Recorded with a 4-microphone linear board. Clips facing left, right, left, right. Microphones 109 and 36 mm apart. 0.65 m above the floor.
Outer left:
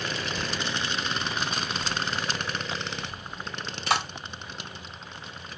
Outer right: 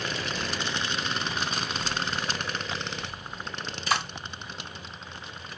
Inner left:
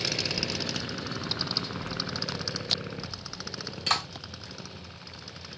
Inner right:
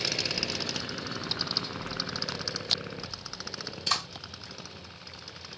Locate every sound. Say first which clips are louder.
0.2 s a child speaking: even, inner left 1 dB; 30° left (ahead or behind), 1.2 m; by 2.6 s 55° left (ahead or behind), 1.4 m
1.6 s a child speaking: outer left 1 dB, inner left 1 dB; 80° left, 2.5 m
3.9 s a clap: outer left 2 dB, inner left 2 dB; 75° left (ahead or behind), 3 m